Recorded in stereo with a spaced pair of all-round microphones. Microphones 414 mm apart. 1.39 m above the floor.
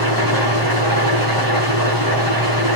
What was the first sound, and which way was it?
An engine running, 55° right (ahead or behind).